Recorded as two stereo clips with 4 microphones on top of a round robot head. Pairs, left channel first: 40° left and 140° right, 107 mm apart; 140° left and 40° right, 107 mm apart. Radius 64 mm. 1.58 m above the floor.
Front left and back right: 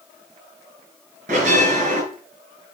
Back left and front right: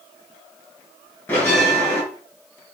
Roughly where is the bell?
Behind right.